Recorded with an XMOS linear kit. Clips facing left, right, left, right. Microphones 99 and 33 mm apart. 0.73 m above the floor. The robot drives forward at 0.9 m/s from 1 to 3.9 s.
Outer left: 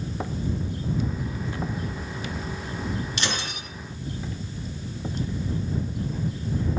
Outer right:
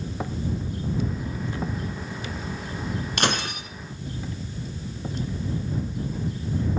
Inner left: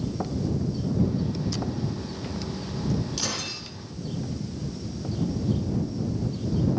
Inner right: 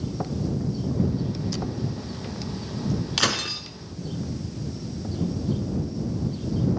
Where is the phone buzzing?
I don't hear a phone buzzing.